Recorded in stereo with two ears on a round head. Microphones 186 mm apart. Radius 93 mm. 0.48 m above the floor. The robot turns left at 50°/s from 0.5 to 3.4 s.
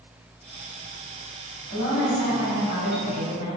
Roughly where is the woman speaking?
Behind left.